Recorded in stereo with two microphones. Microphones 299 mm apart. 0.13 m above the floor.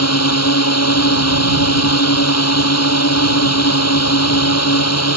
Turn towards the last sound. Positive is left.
turn(degrees=55)  # may be behind; listen again after turning